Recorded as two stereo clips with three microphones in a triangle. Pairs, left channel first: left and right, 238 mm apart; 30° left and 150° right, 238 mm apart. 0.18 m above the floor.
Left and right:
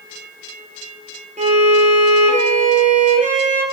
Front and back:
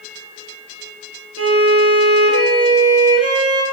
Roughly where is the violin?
Behind right.